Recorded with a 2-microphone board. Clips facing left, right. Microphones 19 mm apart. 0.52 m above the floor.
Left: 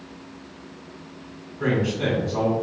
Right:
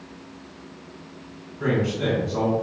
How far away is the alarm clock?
I don't hear an alarm clock.